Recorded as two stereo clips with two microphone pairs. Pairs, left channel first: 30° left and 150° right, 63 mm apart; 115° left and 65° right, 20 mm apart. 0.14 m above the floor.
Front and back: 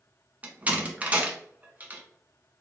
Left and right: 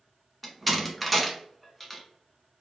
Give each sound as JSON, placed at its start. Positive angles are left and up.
{"t": 0.4, "sound": "a door slam", "azimuth_deg": -150, "distance_m": 0.9}